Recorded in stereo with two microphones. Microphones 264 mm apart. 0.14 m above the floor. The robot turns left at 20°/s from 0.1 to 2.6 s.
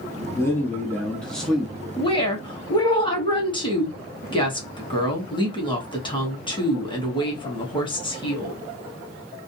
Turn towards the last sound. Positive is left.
turn(degrees=20)  # may be behind; listen again after turning